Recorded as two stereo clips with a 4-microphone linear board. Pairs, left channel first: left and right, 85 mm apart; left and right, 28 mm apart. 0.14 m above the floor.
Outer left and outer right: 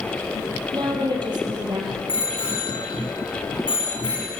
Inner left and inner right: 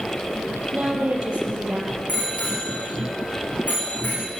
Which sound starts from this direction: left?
A bicycle bell, at 2.1 s.